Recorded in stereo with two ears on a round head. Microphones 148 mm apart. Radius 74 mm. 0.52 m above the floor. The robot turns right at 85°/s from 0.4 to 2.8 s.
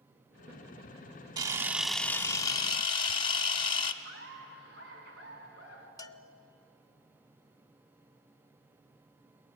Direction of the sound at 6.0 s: 25° left (ahead or behind).